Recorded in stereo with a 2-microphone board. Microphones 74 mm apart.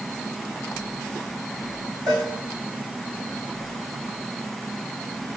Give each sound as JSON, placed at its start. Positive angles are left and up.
{"t": 2.1, "sound": "a cowbell", "side_deg": -65, "distance_m": 5.5}